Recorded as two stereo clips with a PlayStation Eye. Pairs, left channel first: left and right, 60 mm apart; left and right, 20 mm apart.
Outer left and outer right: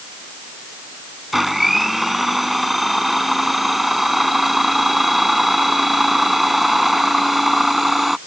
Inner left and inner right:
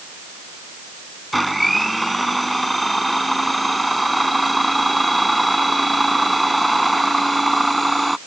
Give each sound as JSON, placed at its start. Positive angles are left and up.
{"t": 1.3, "sound": "a blender", "side_deg": -5}